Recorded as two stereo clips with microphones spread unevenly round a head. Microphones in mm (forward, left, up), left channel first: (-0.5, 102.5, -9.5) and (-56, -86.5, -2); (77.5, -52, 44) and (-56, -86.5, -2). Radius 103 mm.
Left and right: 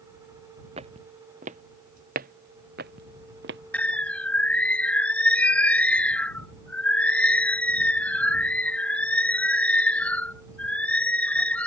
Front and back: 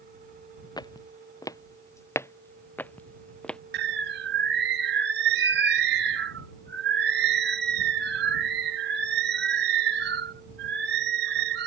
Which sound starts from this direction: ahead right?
Footsteps, at 0.8 s.